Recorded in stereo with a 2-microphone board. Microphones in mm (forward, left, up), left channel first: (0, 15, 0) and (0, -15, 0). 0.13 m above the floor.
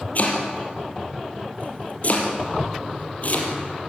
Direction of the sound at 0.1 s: 50° left (ahead or behind).